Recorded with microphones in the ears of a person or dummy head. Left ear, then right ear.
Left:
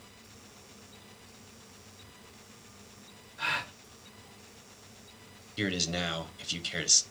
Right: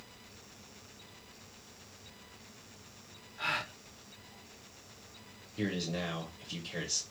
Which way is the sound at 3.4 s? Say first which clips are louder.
Left 2 dB; 10° left (ahead or behind).